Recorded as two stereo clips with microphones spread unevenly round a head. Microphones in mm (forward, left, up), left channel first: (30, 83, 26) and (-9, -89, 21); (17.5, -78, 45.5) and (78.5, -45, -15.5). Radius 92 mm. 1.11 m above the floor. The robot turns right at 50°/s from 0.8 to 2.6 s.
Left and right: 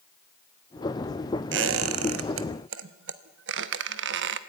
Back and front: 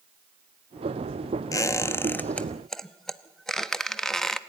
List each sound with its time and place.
1.5 s a squeak: 135° right, 0.9 m; by 4.4 s 80° right, 0.9 m